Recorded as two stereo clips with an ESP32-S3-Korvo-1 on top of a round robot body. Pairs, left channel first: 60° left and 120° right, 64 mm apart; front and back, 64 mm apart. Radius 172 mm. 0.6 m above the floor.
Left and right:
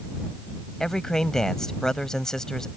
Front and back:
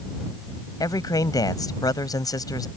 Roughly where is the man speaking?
Ahead.